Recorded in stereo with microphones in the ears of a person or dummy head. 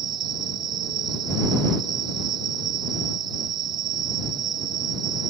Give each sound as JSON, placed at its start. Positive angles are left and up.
{"t": 0.0, "sound": "an insect", "side_deg": -25}